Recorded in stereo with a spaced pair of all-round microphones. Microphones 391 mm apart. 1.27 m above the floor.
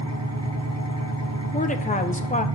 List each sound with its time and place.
0.0 s an engine running: 40° right (ahead or behind), 1.0 m
1.5 s a woman speaking: 20° left (ahead or behind), 0.7 m